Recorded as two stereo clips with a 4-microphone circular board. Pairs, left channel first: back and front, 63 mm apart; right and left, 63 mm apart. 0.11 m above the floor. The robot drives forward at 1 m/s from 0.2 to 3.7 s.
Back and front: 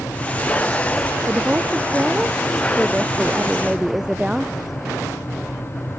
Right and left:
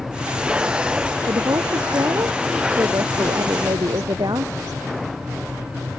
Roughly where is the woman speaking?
Ahead left.